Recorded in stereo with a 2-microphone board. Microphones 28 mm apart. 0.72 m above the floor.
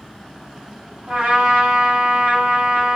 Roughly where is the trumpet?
Right.